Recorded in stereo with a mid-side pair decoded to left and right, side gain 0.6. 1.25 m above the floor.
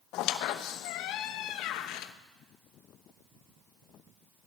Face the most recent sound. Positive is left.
turn(degrees=70)